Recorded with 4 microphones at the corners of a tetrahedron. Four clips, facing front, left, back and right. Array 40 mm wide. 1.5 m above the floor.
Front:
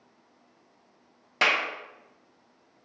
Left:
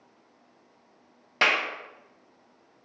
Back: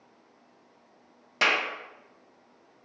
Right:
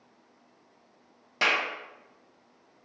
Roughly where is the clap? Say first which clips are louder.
Left 2 dB, front 1 dB; ahead left.